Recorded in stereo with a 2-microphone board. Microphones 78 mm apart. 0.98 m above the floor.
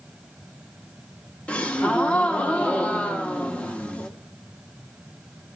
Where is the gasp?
20° left (ahead or behind), 0.7 m.